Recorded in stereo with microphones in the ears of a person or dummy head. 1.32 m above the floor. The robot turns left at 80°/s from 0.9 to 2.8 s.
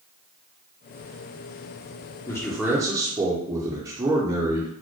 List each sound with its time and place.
2.3 s a man speaking: 25° left, 0.7 m; by 4.7 s 20° right, 0.7 m